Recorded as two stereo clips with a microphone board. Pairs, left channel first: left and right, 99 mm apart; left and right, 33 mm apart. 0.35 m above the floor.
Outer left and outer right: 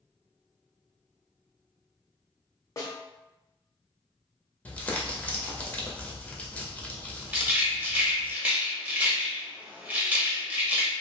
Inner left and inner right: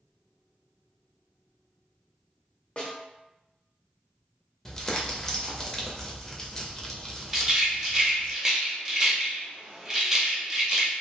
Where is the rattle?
15° right (ahead or behind), 0.8 m.